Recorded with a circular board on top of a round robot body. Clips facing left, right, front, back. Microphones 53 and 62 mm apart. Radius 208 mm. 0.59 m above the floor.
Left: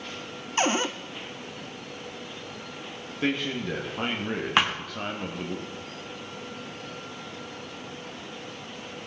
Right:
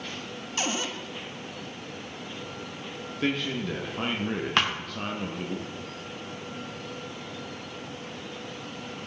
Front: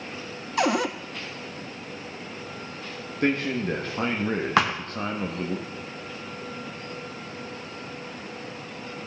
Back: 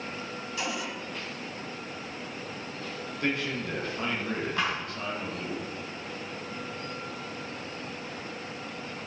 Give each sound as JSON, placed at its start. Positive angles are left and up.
{"t": 0.6, "sound": "a cupboard door", "azimuth_deg": 30, "distance_m": 0.6}
{"t": 3.2, "sound": "a man speaking", "azimuth_deg": 10, "distance_m": 1.6}
{"t": 4.6, "sound": "a thud", "azimuth_deg": 10, "distance_m": 0.6}